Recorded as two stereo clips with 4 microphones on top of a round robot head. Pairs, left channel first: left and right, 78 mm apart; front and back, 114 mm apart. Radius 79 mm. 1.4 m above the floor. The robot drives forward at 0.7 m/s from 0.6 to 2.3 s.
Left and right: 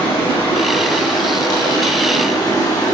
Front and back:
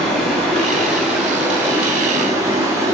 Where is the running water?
85° left, 2 m; by 2.9 s 120° left, 2.5 m.